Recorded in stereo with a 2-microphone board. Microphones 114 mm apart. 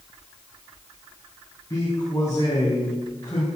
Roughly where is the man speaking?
Left.